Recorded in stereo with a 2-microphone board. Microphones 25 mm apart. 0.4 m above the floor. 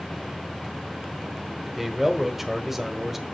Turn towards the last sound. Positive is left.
turn(degrees=-10)  # may be behind; listen again after turning